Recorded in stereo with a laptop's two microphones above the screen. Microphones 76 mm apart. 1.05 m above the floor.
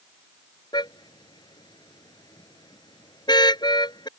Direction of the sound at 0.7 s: 80° left.